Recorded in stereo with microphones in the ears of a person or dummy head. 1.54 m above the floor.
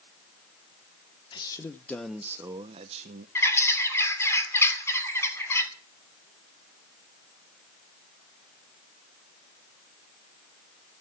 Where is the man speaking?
25° left (ahead or behind), 1.2 m; by 3.2 s 50° right (ahead or behind), 1.0 m.